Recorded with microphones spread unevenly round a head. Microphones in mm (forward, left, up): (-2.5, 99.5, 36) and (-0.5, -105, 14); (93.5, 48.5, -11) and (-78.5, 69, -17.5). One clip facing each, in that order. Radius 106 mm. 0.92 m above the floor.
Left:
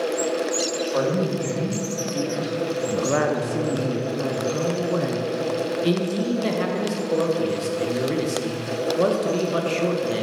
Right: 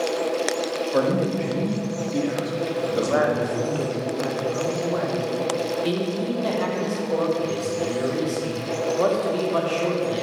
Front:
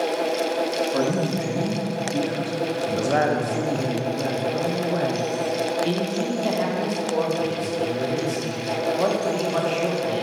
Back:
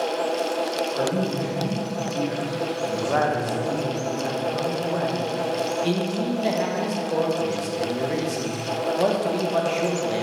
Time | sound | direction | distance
0.9 | a man speaking | 30° right | 1.2 m
2.9 | a woman speaking | 55° left | 0.6 m
5.8 | a man speaking | 115° left | 0.9 m